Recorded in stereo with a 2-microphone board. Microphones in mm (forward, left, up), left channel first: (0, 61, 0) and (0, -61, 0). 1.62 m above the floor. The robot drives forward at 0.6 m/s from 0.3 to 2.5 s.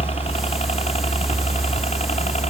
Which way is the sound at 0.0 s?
55° left (ahead or behind).